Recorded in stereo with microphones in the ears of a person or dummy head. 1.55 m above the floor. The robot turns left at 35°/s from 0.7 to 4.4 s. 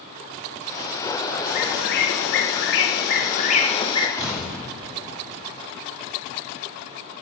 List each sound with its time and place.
1.5 s a bird: 125° left, 1.1 m; by 4.1 s 30° left, 1.1 m
4.2 s an explosion: 10° right (ahead or behind), 2.5 m; by 5.6 s 5° right (ahead or behind), 2.5 m